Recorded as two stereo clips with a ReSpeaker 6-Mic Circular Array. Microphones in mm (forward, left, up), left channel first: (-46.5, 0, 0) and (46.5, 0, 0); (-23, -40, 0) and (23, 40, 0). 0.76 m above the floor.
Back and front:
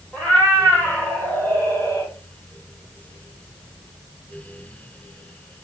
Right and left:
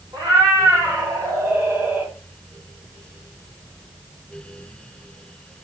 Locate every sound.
0.1 s a cat meowing: 105° left, 2 m; by 2.1 s 130° left, 1.5 m